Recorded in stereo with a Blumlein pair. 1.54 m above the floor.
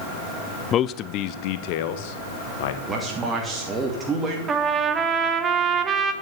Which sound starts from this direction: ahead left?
A man speaking, at 0.7 s.